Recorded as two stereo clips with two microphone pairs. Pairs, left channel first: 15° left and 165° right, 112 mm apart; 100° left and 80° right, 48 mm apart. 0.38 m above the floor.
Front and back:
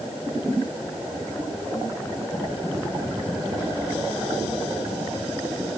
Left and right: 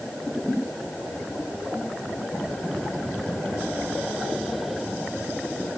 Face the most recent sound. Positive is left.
No sound to turn to.